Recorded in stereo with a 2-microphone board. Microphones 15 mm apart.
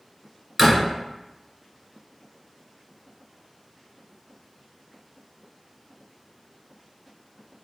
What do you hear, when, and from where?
0.6 s a door slam: 15° right (ahead or behind), 1.6 m